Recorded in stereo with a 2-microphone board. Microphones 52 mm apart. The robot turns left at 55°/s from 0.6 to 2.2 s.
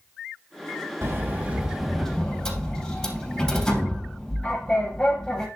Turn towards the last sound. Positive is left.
turn(degrees=160)